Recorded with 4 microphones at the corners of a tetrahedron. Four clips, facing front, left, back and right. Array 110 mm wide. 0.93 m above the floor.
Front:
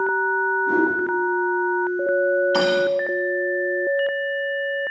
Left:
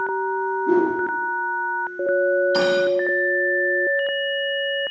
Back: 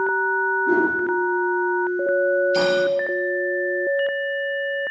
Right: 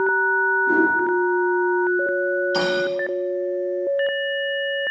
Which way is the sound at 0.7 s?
135° left.